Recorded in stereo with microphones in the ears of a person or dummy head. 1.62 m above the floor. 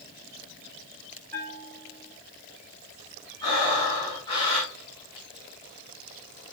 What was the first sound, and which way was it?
A bell, 10° left (ahead or behind).